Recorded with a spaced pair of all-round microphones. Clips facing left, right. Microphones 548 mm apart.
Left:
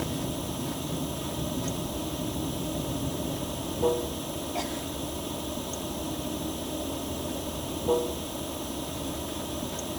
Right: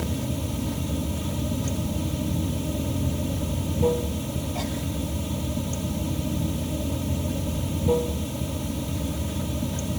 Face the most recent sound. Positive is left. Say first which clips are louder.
# right 2 dB
turn(degrees=-45)  # may be behind; listen again after turning